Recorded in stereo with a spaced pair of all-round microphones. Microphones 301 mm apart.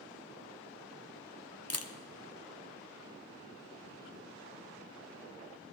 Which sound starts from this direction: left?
A camera shutter, at 1.7 s.